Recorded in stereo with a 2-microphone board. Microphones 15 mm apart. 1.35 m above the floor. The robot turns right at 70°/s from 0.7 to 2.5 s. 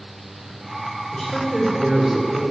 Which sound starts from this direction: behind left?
A woman speaking, at 1.1 s.